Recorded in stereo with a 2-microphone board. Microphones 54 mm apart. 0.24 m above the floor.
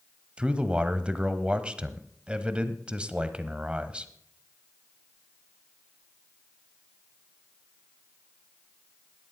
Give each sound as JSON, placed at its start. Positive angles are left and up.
{"t": 0.4, "sound": "a man speaking", "side_deg": -20, "distance_m": 1.0}